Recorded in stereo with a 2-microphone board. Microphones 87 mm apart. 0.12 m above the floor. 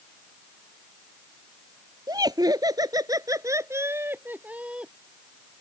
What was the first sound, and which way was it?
Laughter, 45° right (ahead or behind).